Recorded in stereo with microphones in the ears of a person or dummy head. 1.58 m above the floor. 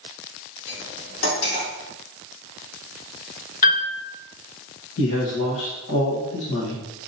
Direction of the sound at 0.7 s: 65° left (ahead or behind).